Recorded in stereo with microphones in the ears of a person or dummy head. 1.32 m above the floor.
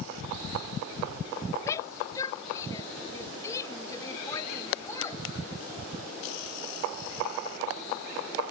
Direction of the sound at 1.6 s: 20° left (ahead or behind).